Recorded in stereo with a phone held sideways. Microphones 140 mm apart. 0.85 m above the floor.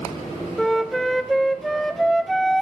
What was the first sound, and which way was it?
A flute, centre (ahead or behind).